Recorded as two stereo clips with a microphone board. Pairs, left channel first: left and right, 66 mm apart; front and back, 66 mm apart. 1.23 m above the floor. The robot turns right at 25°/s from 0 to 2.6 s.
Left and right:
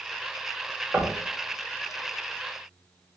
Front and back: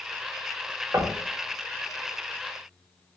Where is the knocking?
145° right, 0.6 m; by 1.2 s 135° right, 0.6 m.